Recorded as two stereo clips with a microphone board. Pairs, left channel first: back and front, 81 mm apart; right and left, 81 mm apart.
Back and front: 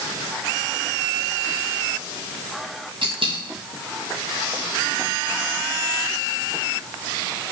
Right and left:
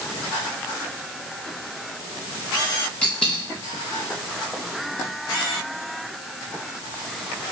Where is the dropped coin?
10° right, 3 m.